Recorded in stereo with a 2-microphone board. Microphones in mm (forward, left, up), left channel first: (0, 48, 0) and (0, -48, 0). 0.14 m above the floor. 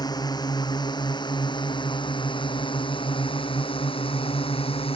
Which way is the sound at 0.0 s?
45° left (ahead or behind).